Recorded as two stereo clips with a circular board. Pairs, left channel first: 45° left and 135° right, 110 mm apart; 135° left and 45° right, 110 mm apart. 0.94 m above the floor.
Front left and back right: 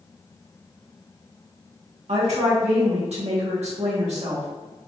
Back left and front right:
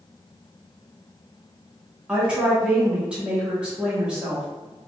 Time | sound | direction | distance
2.1 | a woman speaking | 125° right | 1.4 m